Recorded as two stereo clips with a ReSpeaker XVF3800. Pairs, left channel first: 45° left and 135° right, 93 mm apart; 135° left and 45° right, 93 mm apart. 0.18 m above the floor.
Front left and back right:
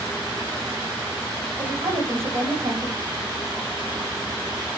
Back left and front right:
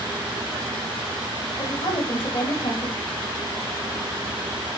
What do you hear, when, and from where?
1.6 s a woman speaking: 165° left, 8.5 m